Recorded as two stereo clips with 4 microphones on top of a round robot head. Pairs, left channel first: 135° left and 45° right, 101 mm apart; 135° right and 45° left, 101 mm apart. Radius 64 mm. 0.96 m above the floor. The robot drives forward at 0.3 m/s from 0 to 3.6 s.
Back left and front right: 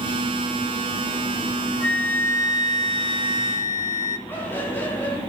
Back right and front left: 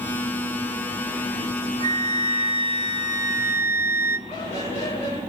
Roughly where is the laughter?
Behind right.